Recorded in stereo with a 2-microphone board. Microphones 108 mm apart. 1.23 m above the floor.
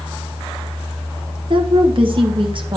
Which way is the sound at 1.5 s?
50° right (ahead or behind).